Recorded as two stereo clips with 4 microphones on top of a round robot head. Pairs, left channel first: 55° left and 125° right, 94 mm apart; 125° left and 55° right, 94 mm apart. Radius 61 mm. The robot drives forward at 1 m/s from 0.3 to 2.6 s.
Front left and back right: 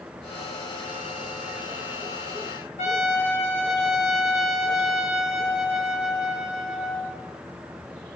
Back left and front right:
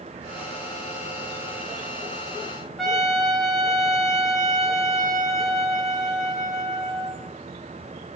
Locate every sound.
2.8 s a trumpet: 40° left, 4 m